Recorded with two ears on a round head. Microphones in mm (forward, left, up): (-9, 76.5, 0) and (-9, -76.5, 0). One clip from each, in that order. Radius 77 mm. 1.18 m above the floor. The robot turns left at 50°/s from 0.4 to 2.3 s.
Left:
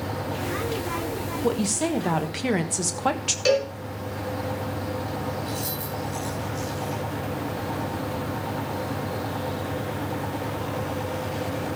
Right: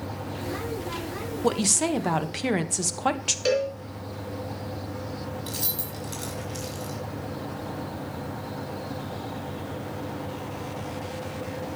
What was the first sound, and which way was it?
A woman speaking, 130° right.